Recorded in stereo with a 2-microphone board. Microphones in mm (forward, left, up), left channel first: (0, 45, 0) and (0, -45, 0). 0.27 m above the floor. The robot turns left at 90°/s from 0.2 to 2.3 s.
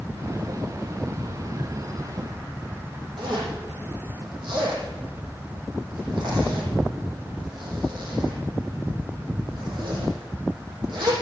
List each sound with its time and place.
3.2 s a zipper: 55° right (ahead or behind), 6.5 m